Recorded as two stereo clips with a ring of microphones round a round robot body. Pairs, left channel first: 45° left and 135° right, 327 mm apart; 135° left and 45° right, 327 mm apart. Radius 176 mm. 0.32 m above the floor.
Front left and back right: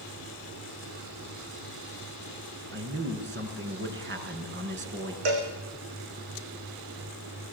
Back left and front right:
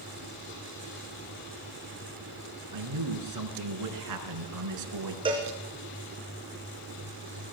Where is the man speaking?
80° right, 4.5 m.